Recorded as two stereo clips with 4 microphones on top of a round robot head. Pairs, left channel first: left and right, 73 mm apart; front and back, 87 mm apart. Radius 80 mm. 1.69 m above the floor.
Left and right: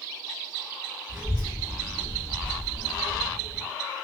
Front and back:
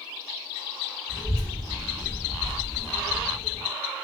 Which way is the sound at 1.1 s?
5° right.